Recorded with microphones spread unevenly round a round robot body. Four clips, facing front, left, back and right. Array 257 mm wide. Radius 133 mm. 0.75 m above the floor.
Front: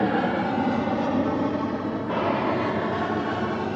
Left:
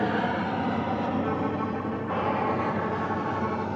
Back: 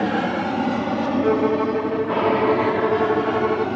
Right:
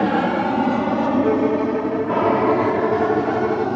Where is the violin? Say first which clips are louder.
Right 10 dB, back 6 dB; 145° right.